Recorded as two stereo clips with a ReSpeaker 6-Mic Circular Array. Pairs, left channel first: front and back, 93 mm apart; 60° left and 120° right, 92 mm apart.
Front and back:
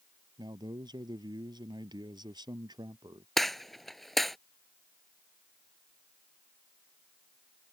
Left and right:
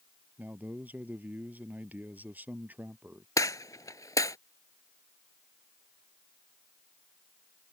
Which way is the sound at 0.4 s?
170° left.